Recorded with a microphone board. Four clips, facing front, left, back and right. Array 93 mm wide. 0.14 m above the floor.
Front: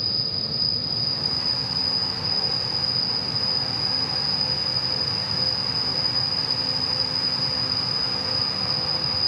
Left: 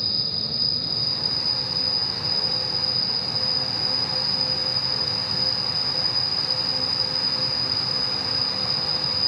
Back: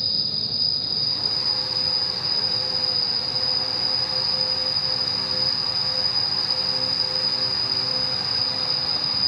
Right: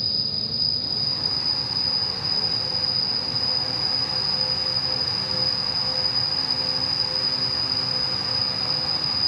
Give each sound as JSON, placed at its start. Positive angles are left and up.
{"t": 0.0, "sound": "an insect", "azimuth_deg": -25, "distance_m": 1.6}